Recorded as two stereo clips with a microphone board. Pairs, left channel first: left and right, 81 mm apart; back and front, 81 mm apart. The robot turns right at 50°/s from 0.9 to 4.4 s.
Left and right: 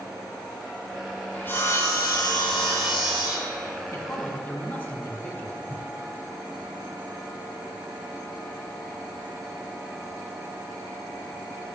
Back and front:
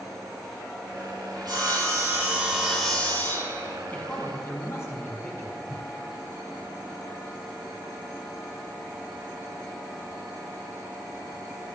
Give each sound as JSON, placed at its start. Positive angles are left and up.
{"t": 1.3, "sound": "sawing", "azimuth_deg": 20, "distance_m": 2.5}
{"t": 3.9, "sound": "a man speaking", "azimuth_deg": 125, "distance_m": 2.0}
{"t": 5.7, "sound": "a whoosh", "azimuth_deg": 135, "distance_m": 0.6}